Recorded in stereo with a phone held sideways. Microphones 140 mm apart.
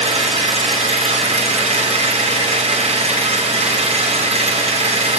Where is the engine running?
50° right (ahead or behind), 0.8 m.